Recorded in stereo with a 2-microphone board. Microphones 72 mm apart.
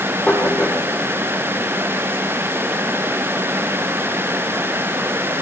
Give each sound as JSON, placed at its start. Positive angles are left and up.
{"t": 0.3, "sound": "knocking", "side_deg": 15, "distance_m": 7.5}